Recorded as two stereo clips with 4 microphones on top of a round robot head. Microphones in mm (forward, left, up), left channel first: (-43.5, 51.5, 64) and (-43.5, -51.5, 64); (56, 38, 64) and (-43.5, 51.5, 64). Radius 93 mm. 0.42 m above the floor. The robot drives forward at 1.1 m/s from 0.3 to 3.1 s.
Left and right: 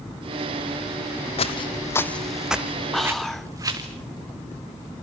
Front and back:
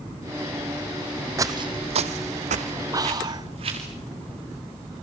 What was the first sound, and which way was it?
Footsteps, 115° left.